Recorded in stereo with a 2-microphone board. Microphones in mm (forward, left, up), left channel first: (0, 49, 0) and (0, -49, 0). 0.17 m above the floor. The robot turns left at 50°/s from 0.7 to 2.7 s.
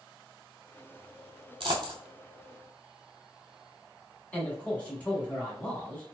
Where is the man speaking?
15° left (ahead or behind), 1.2 m.